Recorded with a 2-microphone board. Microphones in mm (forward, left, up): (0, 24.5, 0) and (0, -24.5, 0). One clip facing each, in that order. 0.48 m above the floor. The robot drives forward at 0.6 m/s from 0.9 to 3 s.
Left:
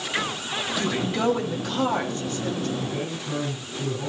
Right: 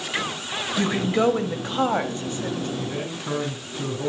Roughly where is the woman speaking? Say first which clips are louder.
Right 5 dB; right.